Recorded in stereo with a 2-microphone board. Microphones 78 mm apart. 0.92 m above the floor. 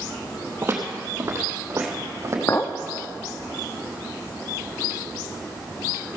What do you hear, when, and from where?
0.6 s footsteps: 30° right (ahead or behind), 1.7 m; by 2.4 s 35° right (ahead or behind), 2.5 m
2.5 s a clink: 35° left (ahead or behind), 0.6 m